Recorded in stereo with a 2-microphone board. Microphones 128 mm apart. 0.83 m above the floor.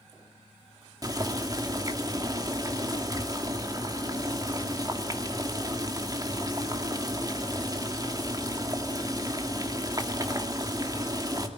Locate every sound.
1.0 s boiling: 30° right (ahead or behind), 2 m